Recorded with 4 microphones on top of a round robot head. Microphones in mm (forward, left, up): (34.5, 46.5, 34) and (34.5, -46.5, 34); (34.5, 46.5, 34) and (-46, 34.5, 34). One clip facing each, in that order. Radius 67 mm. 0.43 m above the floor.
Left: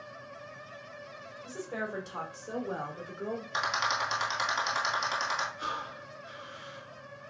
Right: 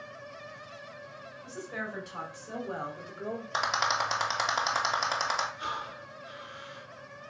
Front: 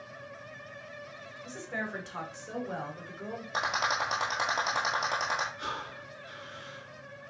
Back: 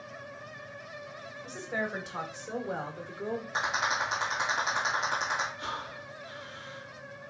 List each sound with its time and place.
1.4 s a woman speaking: 110° left, 1.8 m; by 3.4 s 165° left, 1.4 m
3.5 s a rattle: 40° right, 1.5 m
5.6 s breathing: 45° left, 3 m